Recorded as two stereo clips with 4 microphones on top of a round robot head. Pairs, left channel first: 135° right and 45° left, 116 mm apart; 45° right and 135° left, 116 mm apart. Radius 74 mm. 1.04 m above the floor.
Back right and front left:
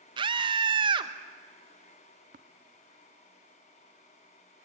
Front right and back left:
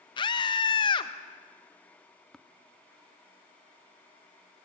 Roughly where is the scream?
Ahead.